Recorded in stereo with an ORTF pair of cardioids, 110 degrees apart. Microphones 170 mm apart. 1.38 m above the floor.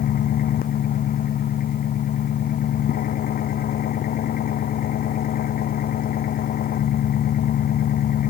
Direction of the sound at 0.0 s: 60° left.